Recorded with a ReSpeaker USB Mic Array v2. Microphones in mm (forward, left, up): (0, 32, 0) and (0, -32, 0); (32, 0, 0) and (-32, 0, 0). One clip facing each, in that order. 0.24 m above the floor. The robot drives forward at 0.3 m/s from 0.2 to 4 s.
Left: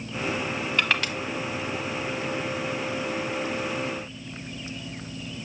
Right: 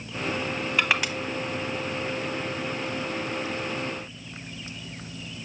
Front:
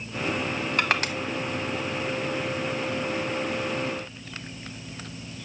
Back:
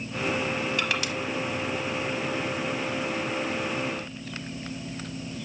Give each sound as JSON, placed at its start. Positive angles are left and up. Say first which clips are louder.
{"t": 0.8, "sound": "crushing", "louder": "right 1 dB, front 3 dB", "azimuth_deg": -15, "distance_m": 0.8}